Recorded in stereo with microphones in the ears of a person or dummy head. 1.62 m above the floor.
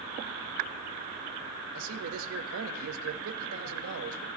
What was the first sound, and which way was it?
A man speaking, 75° right (ahead or behind).